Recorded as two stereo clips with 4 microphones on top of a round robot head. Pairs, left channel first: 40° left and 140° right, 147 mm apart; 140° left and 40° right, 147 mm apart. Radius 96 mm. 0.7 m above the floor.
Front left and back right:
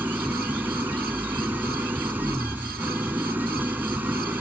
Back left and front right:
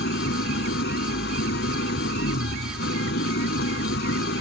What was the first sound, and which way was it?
An engine running, 140° left.